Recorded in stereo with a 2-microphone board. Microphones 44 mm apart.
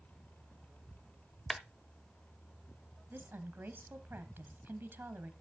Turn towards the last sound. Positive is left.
turn(degrees=-55)  # may be behind; listen again after turning